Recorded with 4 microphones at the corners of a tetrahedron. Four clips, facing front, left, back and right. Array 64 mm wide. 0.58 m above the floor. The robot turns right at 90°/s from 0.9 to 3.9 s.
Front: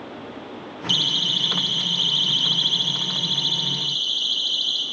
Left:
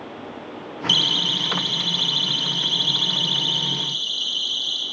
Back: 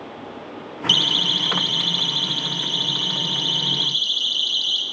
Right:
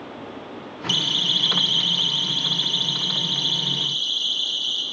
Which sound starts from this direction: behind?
A siren, at 0.9 s.